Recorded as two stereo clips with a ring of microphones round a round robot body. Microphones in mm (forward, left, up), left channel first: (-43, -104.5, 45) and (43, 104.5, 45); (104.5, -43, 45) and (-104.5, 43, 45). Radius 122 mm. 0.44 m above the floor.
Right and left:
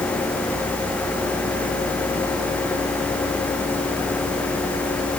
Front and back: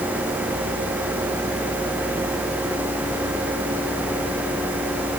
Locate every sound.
Only background noise.